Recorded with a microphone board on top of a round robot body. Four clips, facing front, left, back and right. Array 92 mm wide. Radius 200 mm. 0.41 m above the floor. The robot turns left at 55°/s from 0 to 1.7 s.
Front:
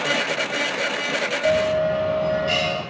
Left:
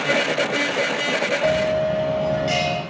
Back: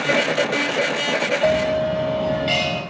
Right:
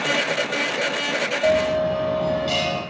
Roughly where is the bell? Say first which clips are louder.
Right 2 dB, front 1 dB; behind.